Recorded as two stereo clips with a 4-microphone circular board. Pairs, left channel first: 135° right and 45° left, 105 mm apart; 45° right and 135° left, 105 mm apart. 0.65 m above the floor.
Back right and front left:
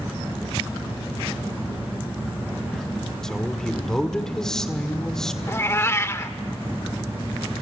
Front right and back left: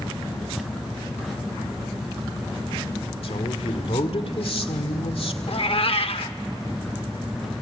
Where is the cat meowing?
70° right, 0.8 m.